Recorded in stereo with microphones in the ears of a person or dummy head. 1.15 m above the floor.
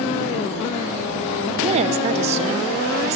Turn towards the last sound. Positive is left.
turn(degrees=-30)  # may be behind; listen again after turning